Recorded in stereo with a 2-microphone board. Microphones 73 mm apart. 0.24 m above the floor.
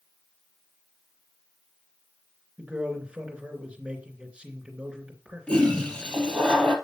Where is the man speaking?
15° right (ahead or behind), 3 m.